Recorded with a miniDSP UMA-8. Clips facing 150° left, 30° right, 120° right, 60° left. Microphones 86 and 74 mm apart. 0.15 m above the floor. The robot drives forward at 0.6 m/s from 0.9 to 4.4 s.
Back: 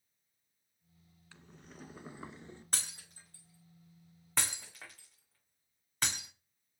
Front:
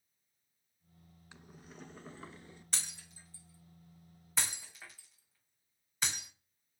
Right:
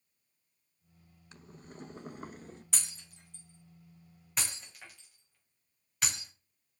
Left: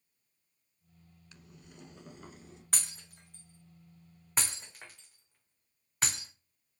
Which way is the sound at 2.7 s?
100° left.